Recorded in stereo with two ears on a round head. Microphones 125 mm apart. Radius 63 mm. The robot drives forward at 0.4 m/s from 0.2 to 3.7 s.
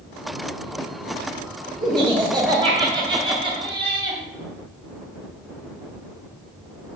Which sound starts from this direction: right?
Laughter, at 1.8 s.